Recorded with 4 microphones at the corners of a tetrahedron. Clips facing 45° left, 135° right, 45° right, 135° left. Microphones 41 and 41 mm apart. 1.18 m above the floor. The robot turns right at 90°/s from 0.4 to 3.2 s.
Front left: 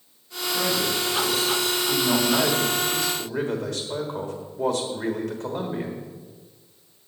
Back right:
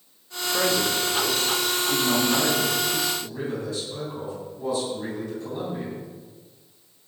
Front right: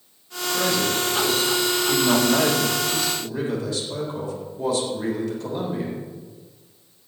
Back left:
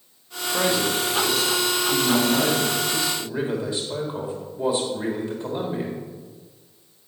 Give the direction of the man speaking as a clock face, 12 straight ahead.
6 o'clock.